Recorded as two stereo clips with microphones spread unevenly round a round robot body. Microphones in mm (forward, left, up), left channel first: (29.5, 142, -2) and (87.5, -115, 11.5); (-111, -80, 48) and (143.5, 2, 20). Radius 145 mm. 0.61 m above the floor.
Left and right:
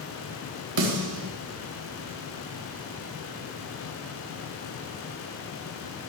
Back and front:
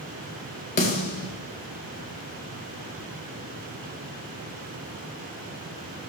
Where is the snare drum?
105° right, 3.5 m.